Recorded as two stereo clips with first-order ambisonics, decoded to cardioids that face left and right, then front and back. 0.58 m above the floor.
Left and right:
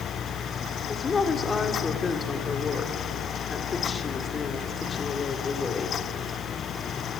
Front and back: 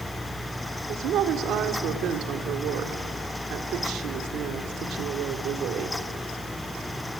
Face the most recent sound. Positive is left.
turn(degrees=160)